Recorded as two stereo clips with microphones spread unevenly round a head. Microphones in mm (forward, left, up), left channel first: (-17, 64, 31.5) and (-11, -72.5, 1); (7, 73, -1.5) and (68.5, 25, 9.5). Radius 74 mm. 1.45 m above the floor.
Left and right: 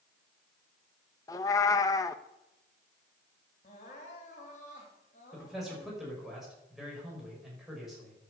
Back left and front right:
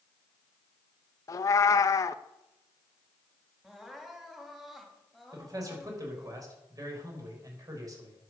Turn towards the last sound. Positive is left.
turn(degrees=0)